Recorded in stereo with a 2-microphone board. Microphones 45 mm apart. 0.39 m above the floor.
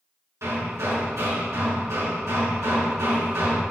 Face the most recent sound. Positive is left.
turn(degrees=-80)